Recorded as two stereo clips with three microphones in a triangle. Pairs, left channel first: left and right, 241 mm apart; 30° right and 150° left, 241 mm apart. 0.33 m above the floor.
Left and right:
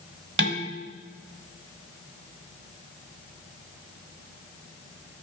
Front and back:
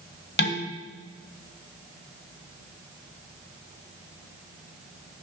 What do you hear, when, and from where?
0.4 s dishes clattering: 65° right, 1.4 m